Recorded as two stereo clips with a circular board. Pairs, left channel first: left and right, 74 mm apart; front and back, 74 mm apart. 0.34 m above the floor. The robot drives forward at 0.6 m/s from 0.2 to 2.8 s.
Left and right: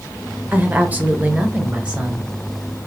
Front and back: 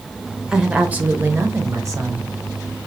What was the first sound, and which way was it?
A woman speaking, 105° right.